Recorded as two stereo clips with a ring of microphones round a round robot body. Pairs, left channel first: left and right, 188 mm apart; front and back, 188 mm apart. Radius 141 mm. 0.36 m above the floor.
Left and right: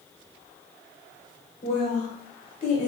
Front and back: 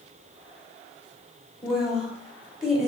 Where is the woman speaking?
95° left, 1.0 m.